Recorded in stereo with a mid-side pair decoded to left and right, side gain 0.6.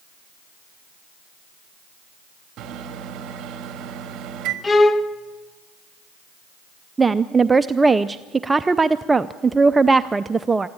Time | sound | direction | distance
2.6 | a microwave | 55° right | 2 m
4.6 | a violin | 20° left | 1.1 m
7.0 | a woman speaking | 20° right | 0.5 m